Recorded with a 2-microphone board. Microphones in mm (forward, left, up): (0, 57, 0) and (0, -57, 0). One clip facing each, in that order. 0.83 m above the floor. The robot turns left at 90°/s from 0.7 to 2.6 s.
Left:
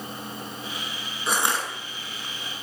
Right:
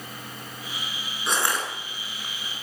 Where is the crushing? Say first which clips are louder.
Left 1 dB; 175° left, 6.5 m; by 1.7 s 140° left, 6.5 m.